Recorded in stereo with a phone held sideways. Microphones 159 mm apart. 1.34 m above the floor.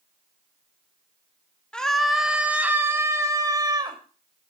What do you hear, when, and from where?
1.7 s a scream: 5° left (ahead or behind), 2.5 m; by 4.0 s 25° right (ahead or behind), 3.5 m